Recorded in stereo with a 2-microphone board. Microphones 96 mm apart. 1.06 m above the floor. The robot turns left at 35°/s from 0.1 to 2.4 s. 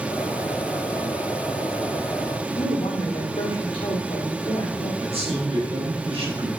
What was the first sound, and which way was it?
A woman speaking, 65° left (ahead or behind).